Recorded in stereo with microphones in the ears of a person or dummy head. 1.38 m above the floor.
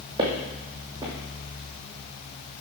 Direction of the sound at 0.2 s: 25° right (ahead or behind).